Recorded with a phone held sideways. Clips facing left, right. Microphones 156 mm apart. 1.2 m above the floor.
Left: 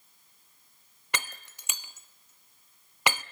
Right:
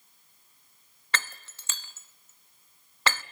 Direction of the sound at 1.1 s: 15° left (ahead or behind).